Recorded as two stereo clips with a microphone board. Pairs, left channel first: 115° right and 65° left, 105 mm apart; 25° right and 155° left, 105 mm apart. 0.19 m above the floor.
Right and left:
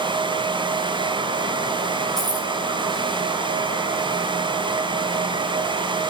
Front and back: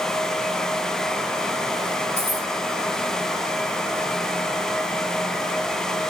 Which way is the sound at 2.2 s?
25° right.